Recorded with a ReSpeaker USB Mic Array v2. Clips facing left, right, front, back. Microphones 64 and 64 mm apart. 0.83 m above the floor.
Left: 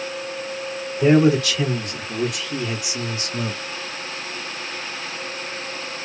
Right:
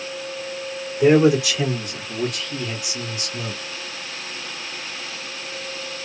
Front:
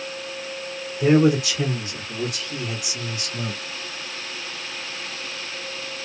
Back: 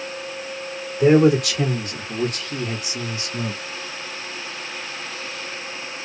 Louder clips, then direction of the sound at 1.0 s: Right 1 dB, back 3 dB; 160° right.